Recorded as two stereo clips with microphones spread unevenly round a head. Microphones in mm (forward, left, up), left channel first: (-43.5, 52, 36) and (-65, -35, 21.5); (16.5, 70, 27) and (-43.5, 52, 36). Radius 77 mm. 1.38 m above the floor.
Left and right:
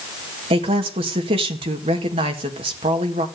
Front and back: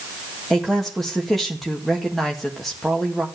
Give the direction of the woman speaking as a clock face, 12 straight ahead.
2 o'clock.